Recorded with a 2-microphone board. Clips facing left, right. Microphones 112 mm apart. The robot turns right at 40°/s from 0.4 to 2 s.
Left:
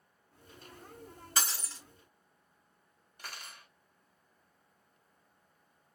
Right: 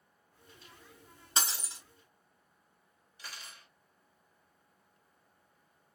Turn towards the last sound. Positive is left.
turn(degrees=55)  # may be behind; listen again after turning